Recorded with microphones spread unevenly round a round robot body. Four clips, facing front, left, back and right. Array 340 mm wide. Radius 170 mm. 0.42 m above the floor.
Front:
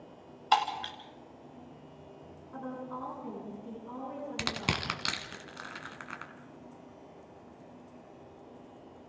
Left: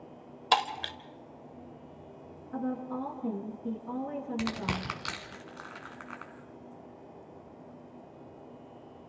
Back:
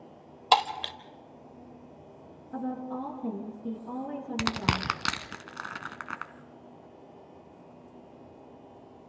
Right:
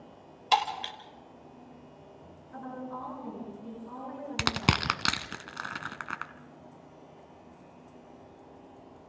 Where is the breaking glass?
150° left, 1.1 m.